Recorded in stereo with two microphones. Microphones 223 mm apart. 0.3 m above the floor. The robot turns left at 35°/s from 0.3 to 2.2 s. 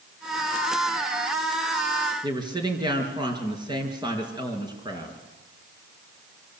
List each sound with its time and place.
2.2 s a woman speaking: 20° right (ahead or behind), 4.5 m